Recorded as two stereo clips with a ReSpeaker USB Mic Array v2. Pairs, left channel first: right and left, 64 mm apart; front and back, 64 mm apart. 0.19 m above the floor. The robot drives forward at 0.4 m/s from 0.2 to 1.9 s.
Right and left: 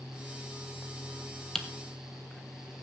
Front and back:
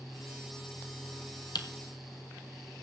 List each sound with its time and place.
1.6 s typing on a keyboard: 5° right, 1.3 m